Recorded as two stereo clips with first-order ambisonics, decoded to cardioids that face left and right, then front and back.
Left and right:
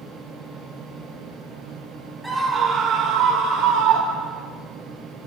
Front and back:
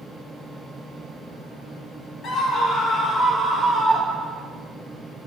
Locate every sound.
2.2 s a scream: 10° right, 1.3 m; by 4.5 s 80° right, 3.5 m